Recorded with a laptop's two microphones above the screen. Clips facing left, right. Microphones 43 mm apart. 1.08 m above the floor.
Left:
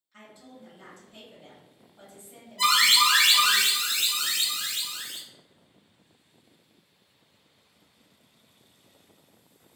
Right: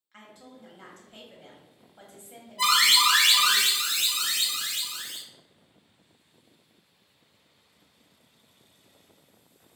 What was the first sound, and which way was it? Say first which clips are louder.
A woman speaking: even; 55° right (ahead or behind).